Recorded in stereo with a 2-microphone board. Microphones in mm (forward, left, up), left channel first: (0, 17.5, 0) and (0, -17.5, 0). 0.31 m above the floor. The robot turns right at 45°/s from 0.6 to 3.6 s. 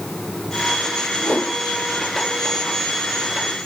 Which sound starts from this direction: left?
A whoosh, at 1.2 s.